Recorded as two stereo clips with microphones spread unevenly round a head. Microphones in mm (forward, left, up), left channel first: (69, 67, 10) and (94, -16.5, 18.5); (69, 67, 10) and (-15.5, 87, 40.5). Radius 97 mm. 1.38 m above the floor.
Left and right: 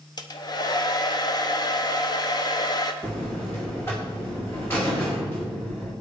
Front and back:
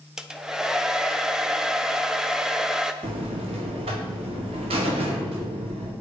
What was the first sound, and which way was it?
A hair dryer, 75° left.